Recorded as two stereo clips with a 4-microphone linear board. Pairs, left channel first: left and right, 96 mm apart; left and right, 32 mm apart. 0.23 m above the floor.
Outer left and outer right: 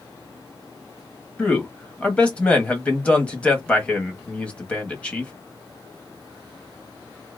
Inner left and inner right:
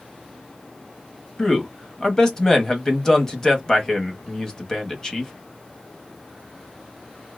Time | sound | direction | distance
1.4 | a man speaking | 15° left (ahead or behind) | 1.0 m